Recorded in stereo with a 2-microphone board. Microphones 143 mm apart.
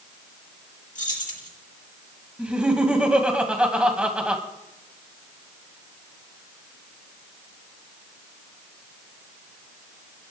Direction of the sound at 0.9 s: 65° left (ahead or behind).